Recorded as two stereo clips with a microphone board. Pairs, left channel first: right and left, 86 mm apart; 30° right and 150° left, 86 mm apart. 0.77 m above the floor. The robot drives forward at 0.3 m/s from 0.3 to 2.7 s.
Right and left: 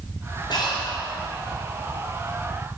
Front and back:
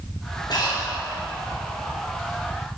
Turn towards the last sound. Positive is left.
turn(degrees=-75)